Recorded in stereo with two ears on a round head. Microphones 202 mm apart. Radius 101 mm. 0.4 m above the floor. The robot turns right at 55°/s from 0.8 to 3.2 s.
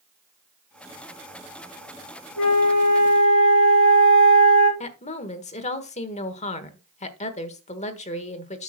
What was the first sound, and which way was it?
A flute, 65° left.